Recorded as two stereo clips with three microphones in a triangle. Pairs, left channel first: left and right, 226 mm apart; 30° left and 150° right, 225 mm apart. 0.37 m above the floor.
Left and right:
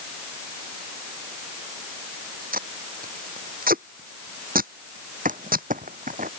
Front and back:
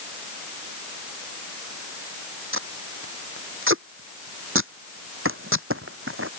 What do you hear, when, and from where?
2.5 s tape being pulled: 135° right
5.2 s crumpling: 140° right